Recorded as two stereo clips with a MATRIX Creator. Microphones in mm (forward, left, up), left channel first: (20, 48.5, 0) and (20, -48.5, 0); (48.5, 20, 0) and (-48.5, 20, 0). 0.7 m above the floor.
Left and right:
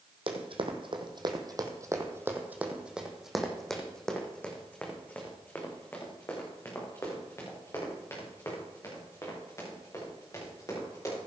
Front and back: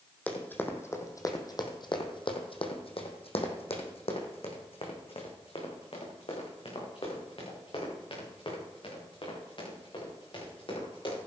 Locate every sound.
0.3 s running footsteps: 75° right, 1.9 m; by 11.2 s 35° left, 7 m